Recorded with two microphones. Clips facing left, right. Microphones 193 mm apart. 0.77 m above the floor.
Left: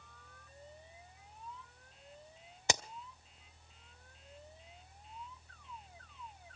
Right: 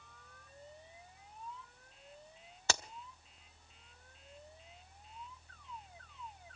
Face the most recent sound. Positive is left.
turn(degrees=15)  # may be behind; listen again after turning